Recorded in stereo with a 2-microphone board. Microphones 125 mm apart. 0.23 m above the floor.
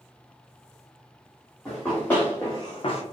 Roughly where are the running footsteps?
Centre.